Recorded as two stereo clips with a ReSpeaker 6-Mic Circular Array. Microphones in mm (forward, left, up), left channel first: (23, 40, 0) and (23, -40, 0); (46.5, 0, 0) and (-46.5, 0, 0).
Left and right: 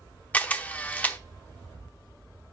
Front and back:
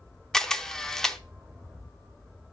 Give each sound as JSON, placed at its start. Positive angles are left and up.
{"t": 0.3, "sound": "a camera shutter", "azimuth_deg": 75, "distance_m": 0.7}